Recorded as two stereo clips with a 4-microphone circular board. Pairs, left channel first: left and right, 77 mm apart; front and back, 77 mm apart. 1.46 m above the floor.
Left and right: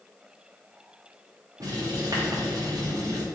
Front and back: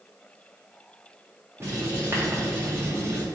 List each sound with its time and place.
1.6 s writing: 125° right, 1.3 m